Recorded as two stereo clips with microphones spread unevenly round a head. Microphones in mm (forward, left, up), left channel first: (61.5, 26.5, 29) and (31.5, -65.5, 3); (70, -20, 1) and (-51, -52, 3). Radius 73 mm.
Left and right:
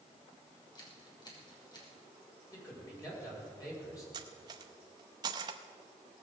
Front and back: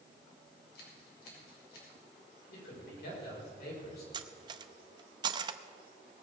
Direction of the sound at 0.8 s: 25° left.